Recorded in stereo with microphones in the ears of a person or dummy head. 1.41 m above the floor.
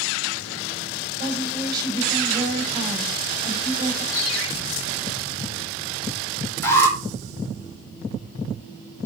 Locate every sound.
1.2 s a woman speaking: 25° right (ahead or behind), 6.5 m
4.1 s a ringtone: 35° left (ahead or behind), 3.5 m
6.6 s an alarm: 15° left (ahead or behind), 5 m